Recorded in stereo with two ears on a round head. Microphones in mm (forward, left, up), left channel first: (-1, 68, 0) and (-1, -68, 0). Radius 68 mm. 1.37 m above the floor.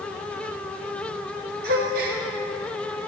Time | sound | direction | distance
1.6 | a gasp | 60° right (ahead or behind) | 1.7 m